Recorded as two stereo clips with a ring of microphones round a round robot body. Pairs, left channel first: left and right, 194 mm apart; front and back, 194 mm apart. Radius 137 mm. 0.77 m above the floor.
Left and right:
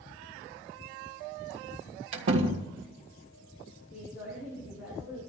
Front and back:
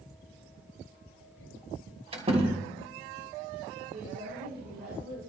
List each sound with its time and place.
2.1 s a door slam: 115° right, 1.3 m
3.9 s a woman speaking: 150° left, 7.5 m